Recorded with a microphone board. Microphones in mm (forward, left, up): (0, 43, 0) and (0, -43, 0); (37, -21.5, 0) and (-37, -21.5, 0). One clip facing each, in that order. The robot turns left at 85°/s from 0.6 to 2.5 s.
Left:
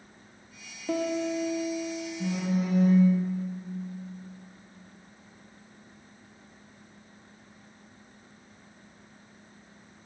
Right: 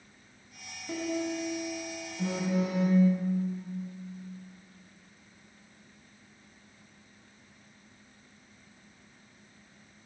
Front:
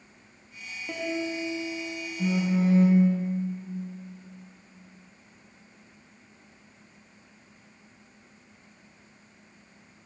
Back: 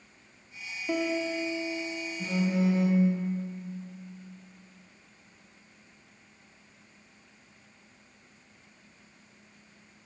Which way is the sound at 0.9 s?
95° left.